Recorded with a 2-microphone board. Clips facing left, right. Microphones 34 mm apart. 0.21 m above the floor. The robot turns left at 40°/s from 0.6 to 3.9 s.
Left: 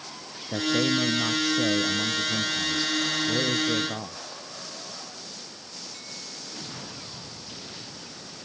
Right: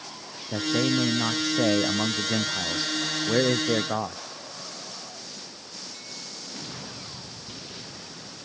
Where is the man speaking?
Straight ahead; by 4.2 s 130° right.